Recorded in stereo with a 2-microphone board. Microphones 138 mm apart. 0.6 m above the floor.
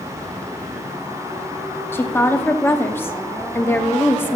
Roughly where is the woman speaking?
Centre.